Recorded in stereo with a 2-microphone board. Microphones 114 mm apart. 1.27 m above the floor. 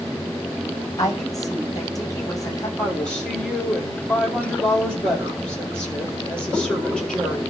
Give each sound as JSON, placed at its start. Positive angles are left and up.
{"t": 1.0, "sound": "a woman speaking", "side_deg": 30, "distance_m": 8.0}
{"t": 2.8, "sound": "a woman speaking", "side_deg": 5, "distance_m": 5.0}